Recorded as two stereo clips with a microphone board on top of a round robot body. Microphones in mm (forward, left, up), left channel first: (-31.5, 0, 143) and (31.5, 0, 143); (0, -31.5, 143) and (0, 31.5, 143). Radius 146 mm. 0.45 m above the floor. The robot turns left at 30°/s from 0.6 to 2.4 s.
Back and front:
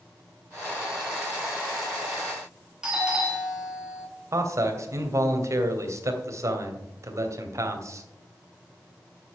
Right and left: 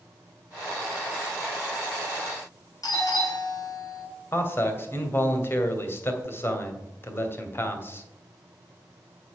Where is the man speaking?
35° right, 2.5 m.